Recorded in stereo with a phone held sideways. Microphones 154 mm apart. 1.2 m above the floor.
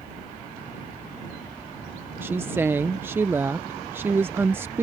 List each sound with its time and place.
2.2 s a woman speaking: 15° right (ahead or behind)